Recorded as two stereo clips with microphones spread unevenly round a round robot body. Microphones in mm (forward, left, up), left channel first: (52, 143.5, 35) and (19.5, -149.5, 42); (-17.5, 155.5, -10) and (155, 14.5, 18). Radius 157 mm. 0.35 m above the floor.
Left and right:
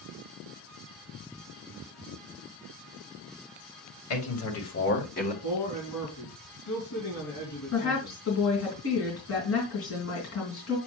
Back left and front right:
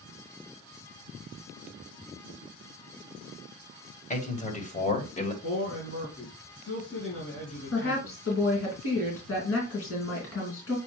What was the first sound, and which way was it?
A man speaking, 95° left.